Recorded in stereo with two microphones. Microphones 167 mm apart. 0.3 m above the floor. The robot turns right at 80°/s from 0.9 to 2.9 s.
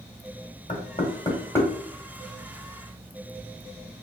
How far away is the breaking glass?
No breaking glass in this recording.